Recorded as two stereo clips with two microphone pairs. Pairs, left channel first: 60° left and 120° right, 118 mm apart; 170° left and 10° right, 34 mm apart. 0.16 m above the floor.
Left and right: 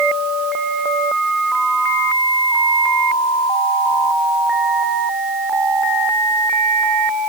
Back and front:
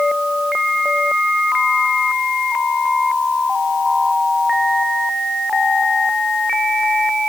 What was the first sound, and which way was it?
Only background noise.